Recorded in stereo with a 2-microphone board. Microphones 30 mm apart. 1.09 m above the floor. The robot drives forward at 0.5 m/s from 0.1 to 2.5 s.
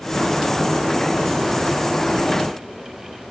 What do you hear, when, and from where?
Only background noise.